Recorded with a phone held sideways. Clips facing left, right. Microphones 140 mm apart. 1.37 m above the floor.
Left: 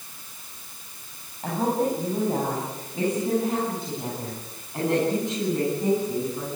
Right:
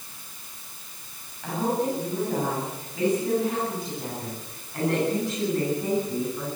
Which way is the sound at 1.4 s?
40° left (ahead or behind).